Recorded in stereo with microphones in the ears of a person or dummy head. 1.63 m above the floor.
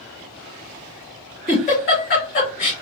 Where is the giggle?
35° left (ahead or behind), 1.9 m.